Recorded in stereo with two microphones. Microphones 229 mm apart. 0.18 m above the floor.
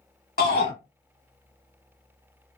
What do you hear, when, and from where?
0.4 s a shout: 45° left (ahead or behind), 1.4 m